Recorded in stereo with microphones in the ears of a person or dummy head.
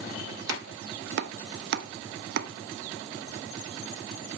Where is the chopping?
60° right (ahead or behind), 0.6 m.